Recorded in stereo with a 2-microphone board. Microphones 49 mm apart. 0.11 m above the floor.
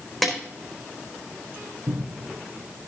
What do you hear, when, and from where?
0.2 s a snare drum: centre (ahead or behind), 4.5 m
1.9 s a cupboard door: 60° right (ahead or behind), 3 m